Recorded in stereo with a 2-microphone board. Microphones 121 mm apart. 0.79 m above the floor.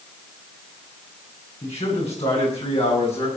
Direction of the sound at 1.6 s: 55° left (ahead or behind).